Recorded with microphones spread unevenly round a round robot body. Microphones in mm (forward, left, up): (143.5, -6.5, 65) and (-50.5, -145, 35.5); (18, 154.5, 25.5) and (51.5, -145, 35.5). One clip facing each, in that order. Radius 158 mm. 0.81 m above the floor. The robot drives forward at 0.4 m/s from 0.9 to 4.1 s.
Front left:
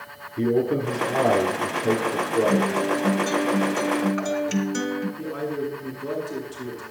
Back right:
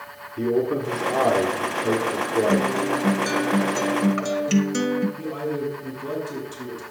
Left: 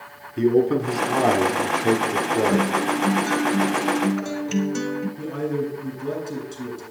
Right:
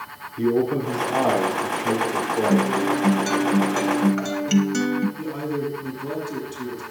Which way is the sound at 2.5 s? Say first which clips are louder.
Even, right 2 dB; 85° right.